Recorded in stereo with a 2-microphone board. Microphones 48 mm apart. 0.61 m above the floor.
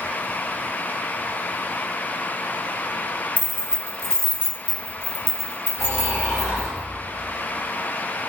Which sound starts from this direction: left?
Snoring, at 5.8 s.